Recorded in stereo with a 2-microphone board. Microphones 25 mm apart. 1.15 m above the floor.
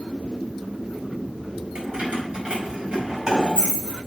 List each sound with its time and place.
1.8 s keys jangling: 50° right (ahead or behind), 4 m; by 4.0 s 30° right (ahead or behind), 4.5 m